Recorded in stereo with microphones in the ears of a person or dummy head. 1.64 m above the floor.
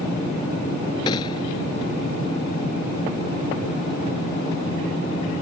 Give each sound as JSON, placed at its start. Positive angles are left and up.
{"t": 1.1, "sound": "a gunshot", "side_deg": 30}